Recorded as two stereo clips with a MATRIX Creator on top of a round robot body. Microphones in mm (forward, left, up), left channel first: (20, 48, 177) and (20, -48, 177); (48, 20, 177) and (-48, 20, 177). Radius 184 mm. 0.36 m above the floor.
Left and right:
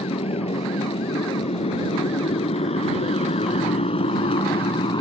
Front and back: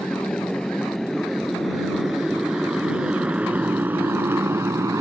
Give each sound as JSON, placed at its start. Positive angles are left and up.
{"t": 0.0, "sound": "a motorcycle", "azimuth_deg": 85}